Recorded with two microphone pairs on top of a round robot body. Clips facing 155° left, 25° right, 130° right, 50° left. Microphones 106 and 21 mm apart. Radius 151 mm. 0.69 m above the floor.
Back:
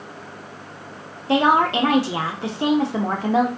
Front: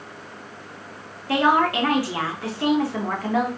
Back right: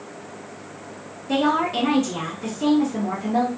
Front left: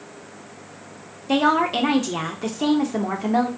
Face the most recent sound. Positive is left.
turn(degrees=95)